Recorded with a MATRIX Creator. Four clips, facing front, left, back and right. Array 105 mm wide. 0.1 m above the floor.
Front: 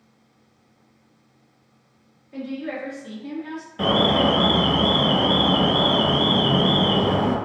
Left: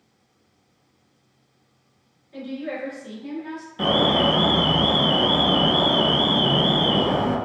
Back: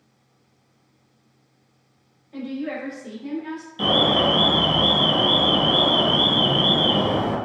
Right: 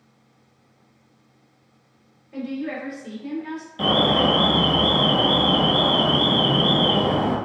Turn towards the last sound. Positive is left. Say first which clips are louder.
# even, front 1 dB
turn(degrees=20)